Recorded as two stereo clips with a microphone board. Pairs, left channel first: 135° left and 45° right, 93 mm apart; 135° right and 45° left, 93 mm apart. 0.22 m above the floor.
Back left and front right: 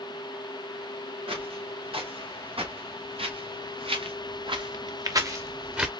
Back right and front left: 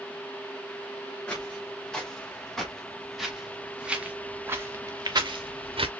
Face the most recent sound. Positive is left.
turn(degrees=35)